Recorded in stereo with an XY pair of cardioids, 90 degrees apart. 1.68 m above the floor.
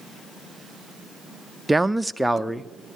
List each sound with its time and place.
1.7 s a man speaking: 15° right, 0.5 m; by 2.7 s 5° left, 1.1 m